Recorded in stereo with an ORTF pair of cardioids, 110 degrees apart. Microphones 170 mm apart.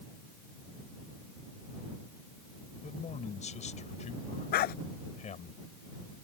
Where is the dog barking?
65° left.